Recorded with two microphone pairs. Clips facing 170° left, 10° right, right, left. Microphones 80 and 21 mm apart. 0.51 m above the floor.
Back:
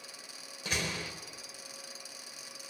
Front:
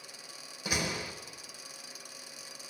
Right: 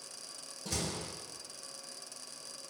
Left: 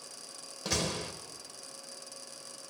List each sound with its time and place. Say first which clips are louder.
0.7 s a door slam: front 2 dB, left 5 dB; 65° left, 1.1 m